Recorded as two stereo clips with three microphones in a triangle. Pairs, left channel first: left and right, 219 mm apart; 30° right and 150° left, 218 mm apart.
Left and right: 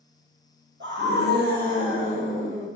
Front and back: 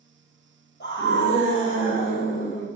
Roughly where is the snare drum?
I don't hear a snare drum.